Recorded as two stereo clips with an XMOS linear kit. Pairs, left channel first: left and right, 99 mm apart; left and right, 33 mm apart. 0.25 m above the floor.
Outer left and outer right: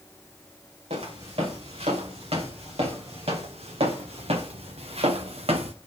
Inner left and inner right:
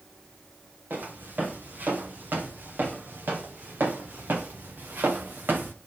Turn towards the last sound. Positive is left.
turn(degrees=-80)